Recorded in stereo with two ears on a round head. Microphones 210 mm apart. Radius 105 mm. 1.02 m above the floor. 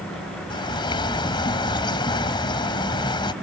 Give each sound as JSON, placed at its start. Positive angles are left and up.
{"t": 0.5, "sound": "a bird", "side_deg": 20}